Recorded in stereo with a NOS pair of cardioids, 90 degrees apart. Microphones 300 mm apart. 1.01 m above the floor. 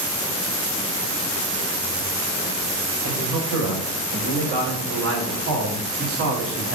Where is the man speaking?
55° right, 5 m; by 6.8 s 45° right, 2.5 m.